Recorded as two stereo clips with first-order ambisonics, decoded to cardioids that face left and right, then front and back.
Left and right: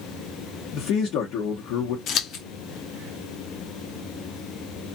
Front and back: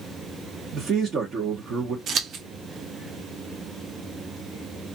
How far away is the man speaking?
About 0.9 m.